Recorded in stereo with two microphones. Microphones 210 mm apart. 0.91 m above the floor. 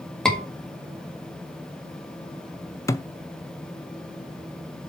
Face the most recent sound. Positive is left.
turn(degrees=15)  # may be behind; listen again after turning